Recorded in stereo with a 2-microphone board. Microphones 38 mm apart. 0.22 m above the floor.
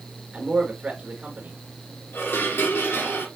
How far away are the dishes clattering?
About 3 m.